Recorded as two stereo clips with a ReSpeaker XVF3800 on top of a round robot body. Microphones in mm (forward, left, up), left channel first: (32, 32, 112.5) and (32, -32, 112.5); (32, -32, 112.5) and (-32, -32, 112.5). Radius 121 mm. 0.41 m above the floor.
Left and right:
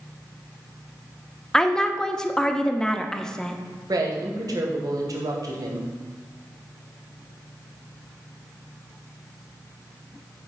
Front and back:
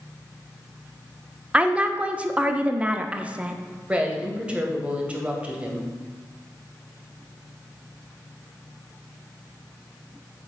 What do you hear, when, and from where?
1.5 s a woman speaking: 150° left, 0.9 m
3.9 s a woman speaking: 110° right, 2 m